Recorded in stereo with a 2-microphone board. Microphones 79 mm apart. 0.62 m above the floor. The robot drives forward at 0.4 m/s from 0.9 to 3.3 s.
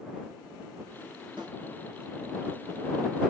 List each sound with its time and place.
1.4 s a snare drum: 80° right, 3.5 m